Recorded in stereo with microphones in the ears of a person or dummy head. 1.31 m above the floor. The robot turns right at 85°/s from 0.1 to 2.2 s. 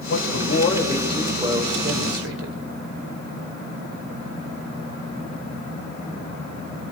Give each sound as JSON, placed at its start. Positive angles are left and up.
{"t": 0.1, "sound": "a man speaking", "azimuth_deg": 95, "distance_m": 5.0}